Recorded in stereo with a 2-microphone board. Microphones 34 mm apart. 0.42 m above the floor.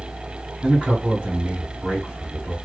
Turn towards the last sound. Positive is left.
turn(degrees=-35)  # may be behind; listen again after turning